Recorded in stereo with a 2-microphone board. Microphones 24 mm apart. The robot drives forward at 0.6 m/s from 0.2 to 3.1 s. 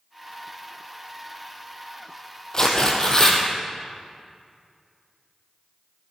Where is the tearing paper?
35° left (ahead or behind), 3 m; by 3.4 s 30° left (ahead or behind), 3 m.